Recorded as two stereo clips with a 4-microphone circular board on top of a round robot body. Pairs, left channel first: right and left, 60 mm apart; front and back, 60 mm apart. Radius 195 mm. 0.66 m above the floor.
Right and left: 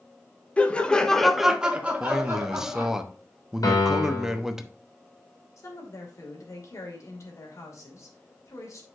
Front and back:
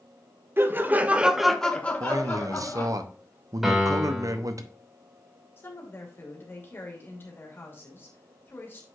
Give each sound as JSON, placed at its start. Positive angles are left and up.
{"t": 0.6, "sound": "laughter", "azimuth_deg": -150, "distance_m": 1.5}
{"t": 2.0, "sound": "a man speaking", "azimuth_deg": 170, "distance_m": 1.1}
{"t": 3.6, "sound": "a piano", "azimuth_deg": -95, "distance_m": 2.5}
{"t": 5.6, "sound": "a woman speaking", "azimuth_deg": -55, "distance_m": 2.5}